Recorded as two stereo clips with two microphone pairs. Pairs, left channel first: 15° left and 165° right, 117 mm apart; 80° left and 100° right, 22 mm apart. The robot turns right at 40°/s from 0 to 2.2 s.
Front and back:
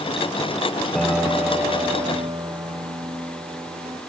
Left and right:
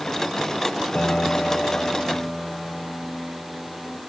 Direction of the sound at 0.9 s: 100° left.